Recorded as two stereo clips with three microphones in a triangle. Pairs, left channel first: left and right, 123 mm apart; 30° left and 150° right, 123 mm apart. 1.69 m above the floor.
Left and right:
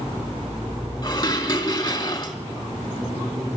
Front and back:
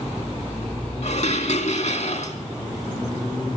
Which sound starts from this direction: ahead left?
Dishes clattering, at 1.0 s.